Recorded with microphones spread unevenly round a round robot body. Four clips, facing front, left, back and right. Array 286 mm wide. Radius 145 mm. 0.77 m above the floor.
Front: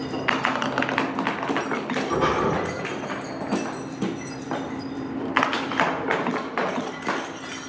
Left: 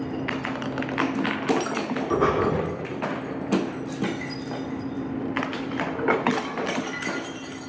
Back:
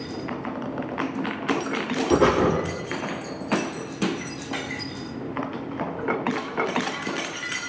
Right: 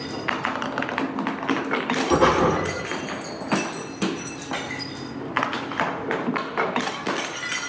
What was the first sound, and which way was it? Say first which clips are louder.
Breathing: right 4 dB, back 4 dB; 160° right.